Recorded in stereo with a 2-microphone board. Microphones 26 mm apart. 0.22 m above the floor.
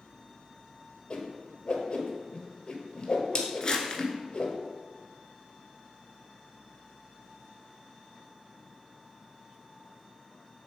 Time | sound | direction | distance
1.1 | a whoosh | 40° left (ahead or behind) | 1.2 m
3.6 | crumpling | 30° left (ahead or behind) | 1.0 m